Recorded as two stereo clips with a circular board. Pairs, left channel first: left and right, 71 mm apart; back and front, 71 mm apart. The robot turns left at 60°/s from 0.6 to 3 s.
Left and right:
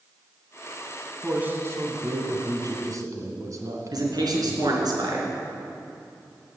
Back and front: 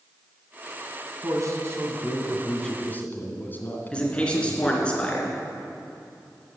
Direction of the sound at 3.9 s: 105° right.